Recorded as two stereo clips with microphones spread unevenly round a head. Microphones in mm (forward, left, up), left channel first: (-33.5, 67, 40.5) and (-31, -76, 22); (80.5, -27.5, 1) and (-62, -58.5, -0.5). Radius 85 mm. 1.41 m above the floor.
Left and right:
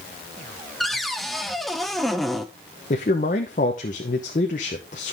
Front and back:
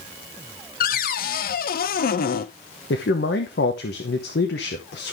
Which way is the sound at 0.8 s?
Straight ahead.